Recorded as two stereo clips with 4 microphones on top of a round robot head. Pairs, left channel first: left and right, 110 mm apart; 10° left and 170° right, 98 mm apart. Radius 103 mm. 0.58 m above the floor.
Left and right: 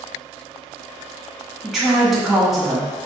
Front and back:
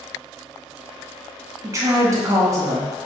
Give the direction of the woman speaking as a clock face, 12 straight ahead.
6 o'clock.